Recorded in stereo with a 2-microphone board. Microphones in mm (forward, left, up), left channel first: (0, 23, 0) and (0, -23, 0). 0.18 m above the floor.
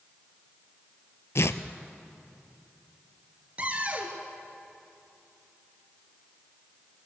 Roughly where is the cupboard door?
Right.